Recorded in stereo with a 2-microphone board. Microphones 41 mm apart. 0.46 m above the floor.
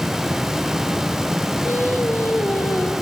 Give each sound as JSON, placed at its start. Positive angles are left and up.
{"t": 1.6, "sound": "singing", "side_deg": 65, "distance_m": 2.5}